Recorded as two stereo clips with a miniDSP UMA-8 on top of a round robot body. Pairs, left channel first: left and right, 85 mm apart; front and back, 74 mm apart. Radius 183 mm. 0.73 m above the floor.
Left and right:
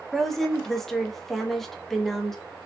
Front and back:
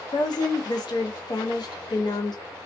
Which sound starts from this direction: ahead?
A woman speaking, at 0.1 s.